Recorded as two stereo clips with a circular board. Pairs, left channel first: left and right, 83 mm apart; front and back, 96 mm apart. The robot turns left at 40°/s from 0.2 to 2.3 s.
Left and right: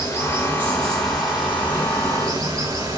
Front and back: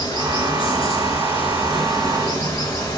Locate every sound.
0.0 s running water: 40° left, 4.5 m; by 3.0 s 45° right, 4.5 m